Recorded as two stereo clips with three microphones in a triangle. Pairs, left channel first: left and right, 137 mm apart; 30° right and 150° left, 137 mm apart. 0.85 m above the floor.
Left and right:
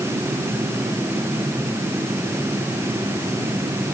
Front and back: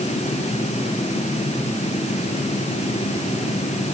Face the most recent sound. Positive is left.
No sound to turn to.